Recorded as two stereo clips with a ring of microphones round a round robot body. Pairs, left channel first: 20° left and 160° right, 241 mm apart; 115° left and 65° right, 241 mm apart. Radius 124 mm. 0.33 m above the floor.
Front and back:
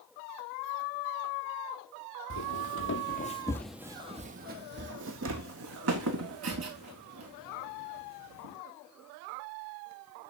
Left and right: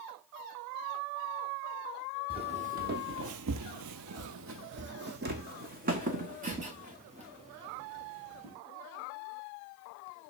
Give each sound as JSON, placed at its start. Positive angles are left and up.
{"t": 2.3, "sound": "footsteps", "azimuth_deg": 0, "distance_m": 0.9}